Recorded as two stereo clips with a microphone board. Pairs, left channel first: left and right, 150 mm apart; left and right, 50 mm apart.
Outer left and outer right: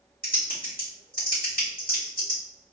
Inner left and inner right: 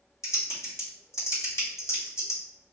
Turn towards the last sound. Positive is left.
turn(degrees=75)  # may be behind; listen again after turning